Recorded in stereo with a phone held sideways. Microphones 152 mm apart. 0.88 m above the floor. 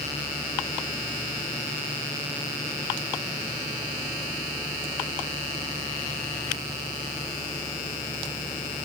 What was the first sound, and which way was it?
Only background noise.